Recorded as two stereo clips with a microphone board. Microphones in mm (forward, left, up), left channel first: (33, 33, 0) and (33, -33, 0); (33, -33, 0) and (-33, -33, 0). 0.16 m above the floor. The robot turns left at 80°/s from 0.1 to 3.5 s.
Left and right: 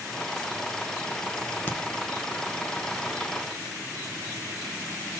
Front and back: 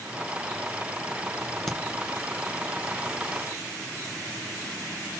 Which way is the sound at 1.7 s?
85° left.